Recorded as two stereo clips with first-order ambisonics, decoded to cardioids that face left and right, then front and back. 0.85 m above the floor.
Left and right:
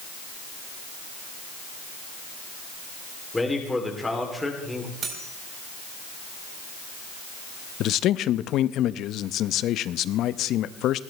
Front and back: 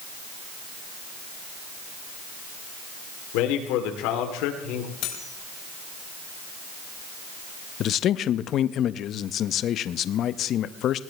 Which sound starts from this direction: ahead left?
A man speaking, at 7.8 s.